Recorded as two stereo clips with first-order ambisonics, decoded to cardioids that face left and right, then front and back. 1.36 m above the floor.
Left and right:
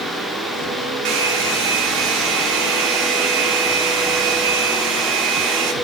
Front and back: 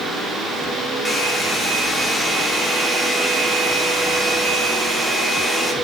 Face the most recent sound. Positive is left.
turn(degrees=-80)